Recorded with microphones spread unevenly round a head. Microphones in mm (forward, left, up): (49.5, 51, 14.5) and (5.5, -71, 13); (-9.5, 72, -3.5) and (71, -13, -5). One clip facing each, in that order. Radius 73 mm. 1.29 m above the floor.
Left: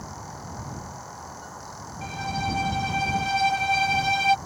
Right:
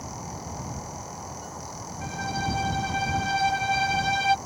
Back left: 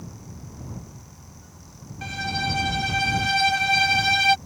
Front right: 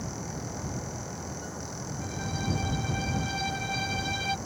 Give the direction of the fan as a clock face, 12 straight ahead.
1 o'clock.